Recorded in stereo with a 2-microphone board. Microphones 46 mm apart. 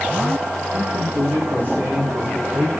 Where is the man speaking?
50° right (ahead or behind), 5.5 m; by 2.7 s 35° right (ahead or behind), 5 m.